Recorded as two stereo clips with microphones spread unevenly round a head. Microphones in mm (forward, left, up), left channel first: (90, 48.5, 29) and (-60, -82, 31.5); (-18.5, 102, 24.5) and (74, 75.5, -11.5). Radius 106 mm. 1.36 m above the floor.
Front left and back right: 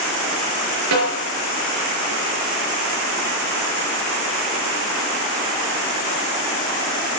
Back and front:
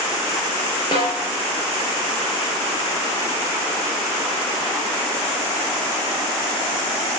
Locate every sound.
0.9 s a snare drum: 140° right, 5 m